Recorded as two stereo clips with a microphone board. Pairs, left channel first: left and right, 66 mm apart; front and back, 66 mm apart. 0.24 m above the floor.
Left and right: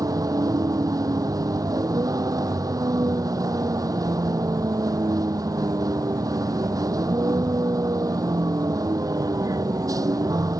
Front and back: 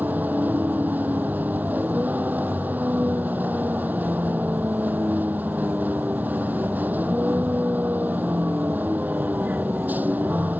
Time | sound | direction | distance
0.0 | a vehicle | 115° right | ?